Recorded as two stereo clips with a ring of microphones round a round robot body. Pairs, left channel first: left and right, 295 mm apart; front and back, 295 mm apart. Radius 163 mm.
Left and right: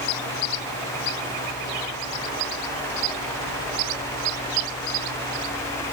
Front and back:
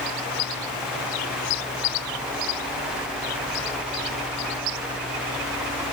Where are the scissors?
I don't hear scissors.